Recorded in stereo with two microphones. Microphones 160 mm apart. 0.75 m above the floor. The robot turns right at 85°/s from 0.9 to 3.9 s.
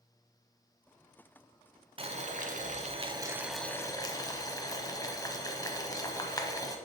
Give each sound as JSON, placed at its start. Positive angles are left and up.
{"t": 2.0, "sound": "boiling", "azimuth_deg": -135, "distance_m": 0.8}